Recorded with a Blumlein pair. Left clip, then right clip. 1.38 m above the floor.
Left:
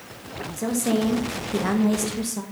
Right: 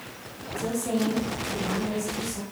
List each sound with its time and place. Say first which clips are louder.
0.6 s a woman speaking: left 3 dB; 20° left, 1.6 m; by 2.4 s 70° left, 1.0 m